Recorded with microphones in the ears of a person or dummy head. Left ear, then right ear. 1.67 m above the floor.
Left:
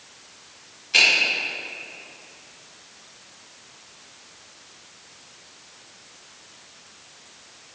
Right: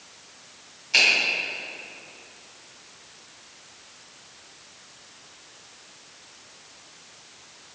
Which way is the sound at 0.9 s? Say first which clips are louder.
Left 2 dB; 20° right (ahead or behind).